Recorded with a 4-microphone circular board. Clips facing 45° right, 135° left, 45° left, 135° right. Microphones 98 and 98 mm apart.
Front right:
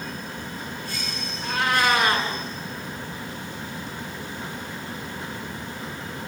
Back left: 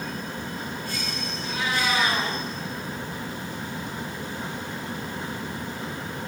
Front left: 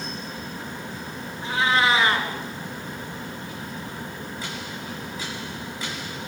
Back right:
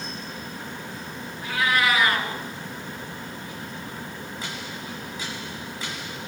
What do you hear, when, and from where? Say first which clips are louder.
1.4 s a cat meowing: front right 5 dB, front left 2 dB; 15° right, 5 m